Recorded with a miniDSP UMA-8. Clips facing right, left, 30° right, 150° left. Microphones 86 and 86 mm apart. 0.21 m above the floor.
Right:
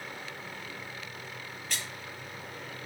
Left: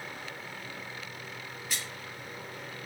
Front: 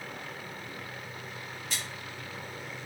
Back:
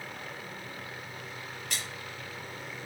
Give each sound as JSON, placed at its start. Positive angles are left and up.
{"t": 1.7, "sound": "a splash", "azimuth_deg": 175, "distance_m": 5.0}